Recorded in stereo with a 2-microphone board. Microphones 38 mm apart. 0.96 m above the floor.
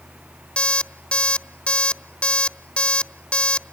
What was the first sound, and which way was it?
An alarm clock, 30° left (ahead or behind).